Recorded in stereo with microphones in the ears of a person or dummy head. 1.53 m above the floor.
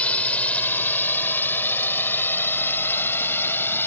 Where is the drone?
10° left (ahead or behind); by 3.9 s 15° left (ahead or behind).